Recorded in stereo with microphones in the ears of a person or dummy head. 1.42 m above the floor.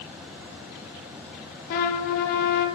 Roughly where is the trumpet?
Left.